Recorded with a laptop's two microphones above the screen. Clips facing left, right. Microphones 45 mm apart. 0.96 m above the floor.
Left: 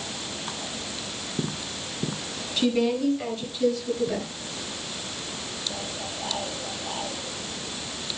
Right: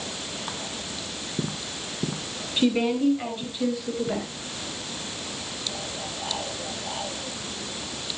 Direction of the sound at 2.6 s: 15° right (ahead or behind).